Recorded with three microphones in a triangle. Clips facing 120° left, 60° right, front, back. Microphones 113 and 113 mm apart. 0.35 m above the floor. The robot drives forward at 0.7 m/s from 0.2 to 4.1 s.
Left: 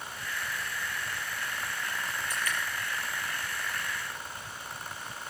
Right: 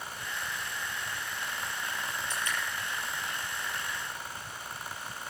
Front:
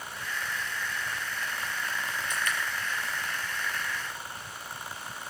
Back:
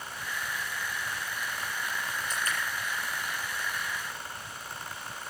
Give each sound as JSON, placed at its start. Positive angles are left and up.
{"t": 2.3, "sound": "dripping", "azimuth_deg": -125, "distance_m": 5.5}